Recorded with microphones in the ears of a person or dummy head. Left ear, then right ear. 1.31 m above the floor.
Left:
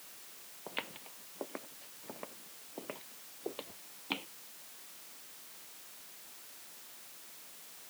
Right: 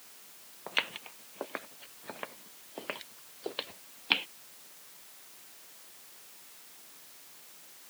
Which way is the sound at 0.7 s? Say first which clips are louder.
Right 9 dB; 40° right (ahead or behind).